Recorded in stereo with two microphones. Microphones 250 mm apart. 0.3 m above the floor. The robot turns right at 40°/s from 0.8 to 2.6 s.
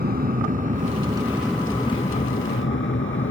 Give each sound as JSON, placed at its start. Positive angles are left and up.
{"t": 0.0, "sound": "an aircraft", "side_deg": -40}